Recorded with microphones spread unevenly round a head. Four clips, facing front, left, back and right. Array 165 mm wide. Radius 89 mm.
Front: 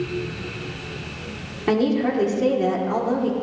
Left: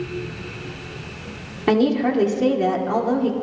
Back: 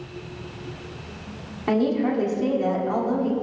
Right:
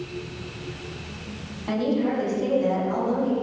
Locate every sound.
1.7 s a woman speaking: 70° left, 2.5 m